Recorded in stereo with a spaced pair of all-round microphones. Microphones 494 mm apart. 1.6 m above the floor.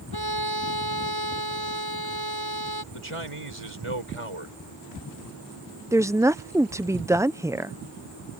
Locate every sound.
0.1 s a violin: 60° right (ahead or behind)
2.9 s a man speaking: 80° right
5.9 s a woman speaking: 5° right (ahead or behind)